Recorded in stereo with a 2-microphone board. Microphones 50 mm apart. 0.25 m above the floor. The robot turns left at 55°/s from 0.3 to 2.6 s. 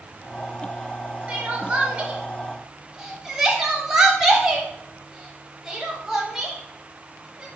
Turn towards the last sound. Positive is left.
turn(degrees=-10)  # may be behind; listen again after turning